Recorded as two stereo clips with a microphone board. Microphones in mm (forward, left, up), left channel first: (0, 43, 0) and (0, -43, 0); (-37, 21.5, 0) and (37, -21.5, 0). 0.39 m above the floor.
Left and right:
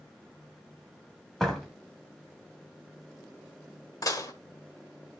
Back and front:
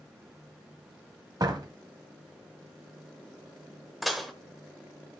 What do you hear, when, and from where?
1.4 s a door slam: 5° left, 1.5 m
4.0 s dishes clattering: 60° left, 1.0 m